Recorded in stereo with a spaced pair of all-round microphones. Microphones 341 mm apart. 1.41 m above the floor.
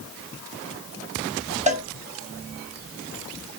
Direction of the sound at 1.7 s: 20° right (ahead or behind).